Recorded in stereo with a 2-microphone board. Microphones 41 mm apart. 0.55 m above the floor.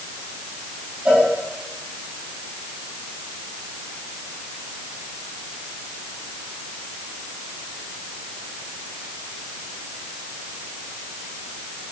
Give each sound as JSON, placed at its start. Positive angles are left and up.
{"t": 1.1, "sound": "a cowbell", "side_deg": -30, "distance_m": 4.0}